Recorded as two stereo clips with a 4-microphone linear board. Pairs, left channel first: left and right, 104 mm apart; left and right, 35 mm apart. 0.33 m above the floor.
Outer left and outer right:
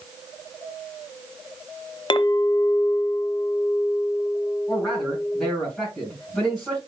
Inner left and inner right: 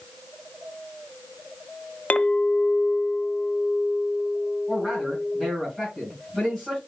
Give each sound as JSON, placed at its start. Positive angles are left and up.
{"t": 2.1, "sound": "a clink", "side_deg": 50, "distance_m": 0.6}
{"t": 4.7, "sound": "a man speaking", "side_deg": 10, "distance_m": 3.0}